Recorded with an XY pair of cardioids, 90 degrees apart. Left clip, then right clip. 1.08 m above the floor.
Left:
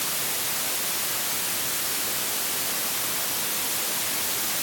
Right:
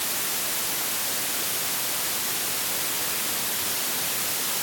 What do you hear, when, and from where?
Only background noise.